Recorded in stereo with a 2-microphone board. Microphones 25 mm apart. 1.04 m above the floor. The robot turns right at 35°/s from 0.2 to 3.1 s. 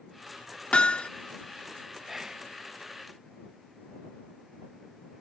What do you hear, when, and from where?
0.7 s hammering: 50° left (ahead or behind); by 1.1 s 60° left (ahead or behind)
2.1 s whispering: 15° right (ahead or behind); by 2.5 s 20° right (ahead or behind)